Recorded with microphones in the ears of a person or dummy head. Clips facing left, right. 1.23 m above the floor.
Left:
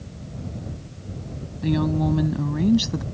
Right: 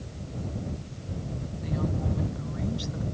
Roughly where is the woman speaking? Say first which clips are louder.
Left 10 dB; left.